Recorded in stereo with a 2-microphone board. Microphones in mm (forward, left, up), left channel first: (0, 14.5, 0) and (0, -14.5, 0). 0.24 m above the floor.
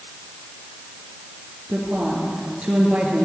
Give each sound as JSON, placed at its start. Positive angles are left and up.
{"t": 1.7, "sound": "a woman speaking", "side_deg": -50, "distance_m": 4.0}